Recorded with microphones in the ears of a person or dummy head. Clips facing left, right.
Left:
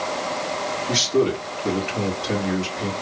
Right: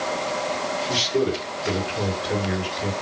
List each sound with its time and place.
0.9 s a man speaking: 65° left (ahead or behind), 2.5 m